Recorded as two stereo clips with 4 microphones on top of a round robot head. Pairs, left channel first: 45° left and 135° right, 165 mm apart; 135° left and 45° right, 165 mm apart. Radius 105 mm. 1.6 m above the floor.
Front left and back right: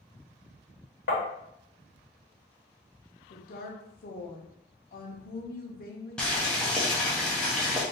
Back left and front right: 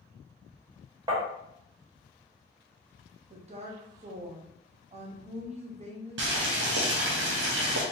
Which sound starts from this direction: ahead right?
Boiling, at 6.2 s.